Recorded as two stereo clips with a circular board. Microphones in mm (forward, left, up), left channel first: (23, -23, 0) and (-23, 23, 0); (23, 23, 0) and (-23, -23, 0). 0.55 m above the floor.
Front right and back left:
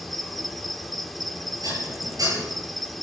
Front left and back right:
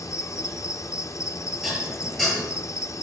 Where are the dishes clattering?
130° left, 7 m.